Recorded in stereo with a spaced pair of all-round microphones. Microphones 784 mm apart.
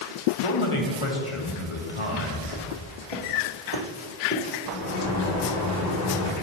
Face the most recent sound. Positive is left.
turn(degrees=60)  # may be behind; listen again after turning